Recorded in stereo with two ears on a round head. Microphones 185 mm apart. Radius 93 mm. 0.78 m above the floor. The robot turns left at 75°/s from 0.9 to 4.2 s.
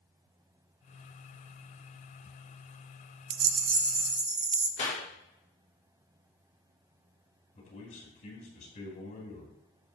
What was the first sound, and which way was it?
A rattle, 90° right.